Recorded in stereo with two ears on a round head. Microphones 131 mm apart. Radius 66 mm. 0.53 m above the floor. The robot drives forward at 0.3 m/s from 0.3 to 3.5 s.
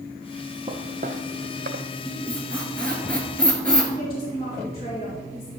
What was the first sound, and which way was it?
Footsteps, 40° right (ahead or behind).